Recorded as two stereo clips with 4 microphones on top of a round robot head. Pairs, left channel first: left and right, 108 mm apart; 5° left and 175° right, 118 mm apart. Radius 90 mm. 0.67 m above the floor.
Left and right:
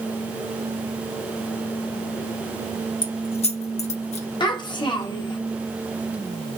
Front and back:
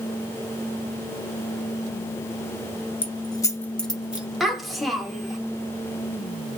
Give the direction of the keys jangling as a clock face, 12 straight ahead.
10 o'clock.